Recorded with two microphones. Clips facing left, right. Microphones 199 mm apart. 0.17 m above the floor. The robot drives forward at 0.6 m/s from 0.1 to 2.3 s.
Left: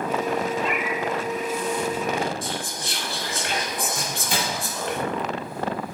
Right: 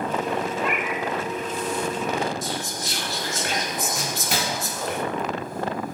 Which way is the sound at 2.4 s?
45° right (ahead or behind).